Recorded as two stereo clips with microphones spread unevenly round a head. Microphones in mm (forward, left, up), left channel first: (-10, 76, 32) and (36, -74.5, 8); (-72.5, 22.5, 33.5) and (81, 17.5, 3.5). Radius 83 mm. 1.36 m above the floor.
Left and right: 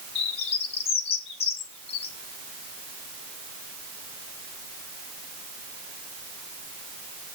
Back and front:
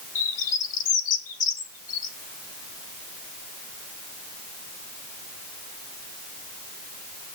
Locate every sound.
0.1 s a bird: 155° left, 1.6 m